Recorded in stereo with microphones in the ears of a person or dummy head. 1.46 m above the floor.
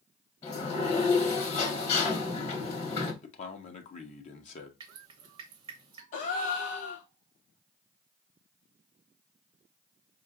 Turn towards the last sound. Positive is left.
turn(degrees=40)  # may be behind; listen again after turning